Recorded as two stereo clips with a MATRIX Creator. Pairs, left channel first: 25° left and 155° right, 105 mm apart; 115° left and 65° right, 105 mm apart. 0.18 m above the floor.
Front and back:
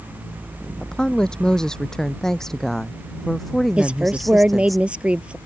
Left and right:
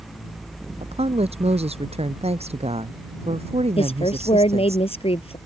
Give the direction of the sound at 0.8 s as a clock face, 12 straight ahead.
2 o'clock.